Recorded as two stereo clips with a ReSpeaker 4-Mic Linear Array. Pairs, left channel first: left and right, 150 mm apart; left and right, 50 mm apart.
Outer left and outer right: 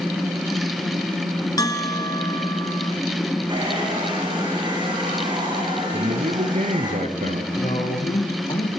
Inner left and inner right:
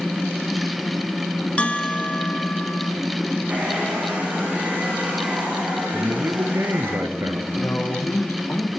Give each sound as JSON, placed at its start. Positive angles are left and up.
{"t": 1.6, "sound": "a bell", "side_deg": 25, "distance_m": 1.6}
{"t": 3.5, "sound": "a hair dryer", "side_deg": -30, "distance_m": 8.5}
{"t": 5.9, "sound": "a man speaking", "side_deg": -60, "distance_m": 2.5}
{"t": 7.5, "sound": "a man speaking", "side_deg": 40, "distance_m": 5.5}